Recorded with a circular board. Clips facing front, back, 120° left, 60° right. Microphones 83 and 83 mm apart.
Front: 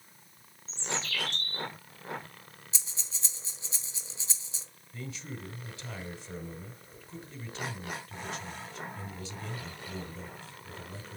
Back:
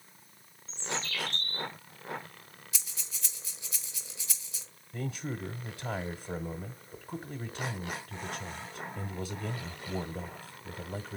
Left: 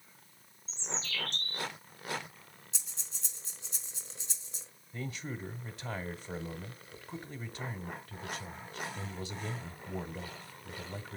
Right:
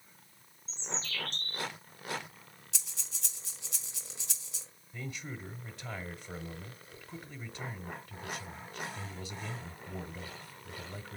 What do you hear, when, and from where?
0.7 s a bird: 10° right, 7 m
2.7 s breathing: 55° right, 1.9 m
4.9 s a man speaking: 160° right, 1.1 m